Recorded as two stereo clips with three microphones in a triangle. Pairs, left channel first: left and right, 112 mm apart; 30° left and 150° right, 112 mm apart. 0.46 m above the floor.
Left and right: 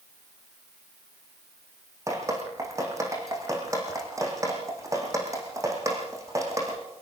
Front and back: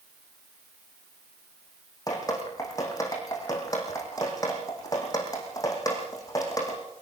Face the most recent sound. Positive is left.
turn(degrees=-30)